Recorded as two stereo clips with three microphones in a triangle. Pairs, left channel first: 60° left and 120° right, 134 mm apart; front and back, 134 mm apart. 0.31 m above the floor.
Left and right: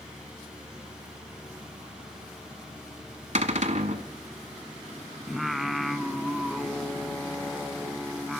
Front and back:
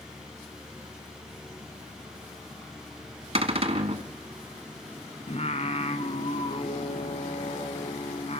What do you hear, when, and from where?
3.4 s a cupboard door: 145° right, 1.4 m
5.3 s singing: 30° right, 1.1 m